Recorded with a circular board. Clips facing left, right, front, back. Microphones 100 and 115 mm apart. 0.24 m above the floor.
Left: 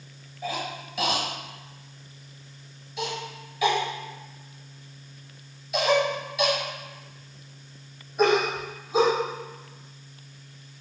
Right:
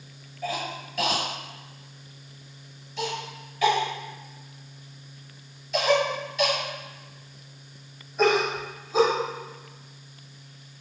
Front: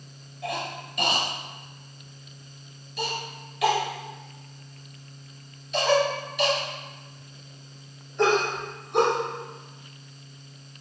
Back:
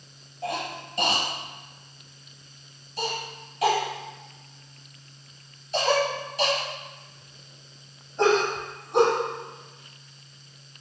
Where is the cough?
165° left, 1.8 m.